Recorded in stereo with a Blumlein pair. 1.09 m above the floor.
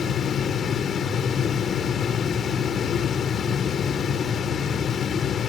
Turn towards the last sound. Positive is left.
turn(degrees=20)